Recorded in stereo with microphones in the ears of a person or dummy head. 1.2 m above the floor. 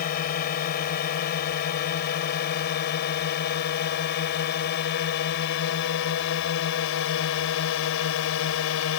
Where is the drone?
50° left (ahead or behind); by 9.0 s 70° left (ahead or behind).